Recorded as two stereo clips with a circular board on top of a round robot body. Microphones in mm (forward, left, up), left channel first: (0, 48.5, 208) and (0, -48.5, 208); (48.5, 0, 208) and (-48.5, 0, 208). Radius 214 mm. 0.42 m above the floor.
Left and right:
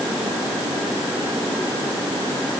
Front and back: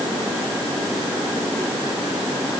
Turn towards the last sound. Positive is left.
No sound to turn to.